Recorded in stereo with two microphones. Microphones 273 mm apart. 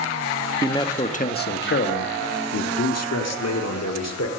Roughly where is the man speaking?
Centre.